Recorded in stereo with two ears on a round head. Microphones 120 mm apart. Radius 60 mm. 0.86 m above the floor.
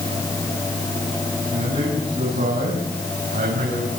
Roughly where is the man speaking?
Right.